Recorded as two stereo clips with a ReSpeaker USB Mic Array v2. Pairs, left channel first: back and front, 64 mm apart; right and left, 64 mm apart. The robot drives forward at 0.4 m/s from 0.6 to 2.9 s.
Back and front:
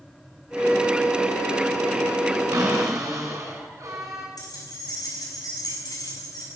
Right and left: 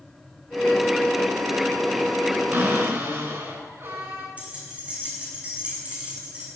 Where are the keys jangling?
160° left, 6.5 m.